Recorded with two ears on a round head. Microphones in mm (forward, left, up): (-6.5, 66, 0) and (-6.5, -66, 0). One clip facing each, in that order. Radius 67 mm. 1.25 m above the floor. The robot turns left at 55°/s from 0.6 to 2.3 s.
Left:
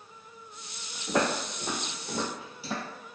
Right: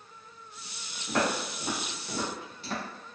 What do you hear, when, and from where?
1.1 s footsteps: 10° left (ahead or behind), 1.4 m; by 2.8 s 15° left (ahead or behind), 1.3 m